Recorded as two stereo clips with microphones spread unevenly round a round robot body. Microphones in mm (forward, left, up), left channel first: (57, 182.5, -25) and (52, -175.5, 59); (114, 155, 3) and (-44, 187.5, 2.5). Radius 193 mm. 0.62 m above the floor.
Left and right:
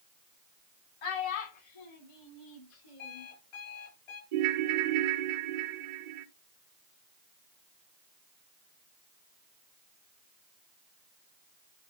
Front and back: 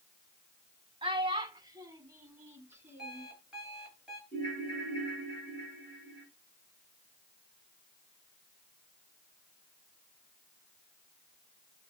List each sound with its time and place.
1.0 s a child speaking: 110° left, 2.5 m; by 3.3 s 90° left, 4.5 m
3.0 s an alarm clock: 80° left, 7 m
4.3 s a ringtone: 85° right, 1.1 m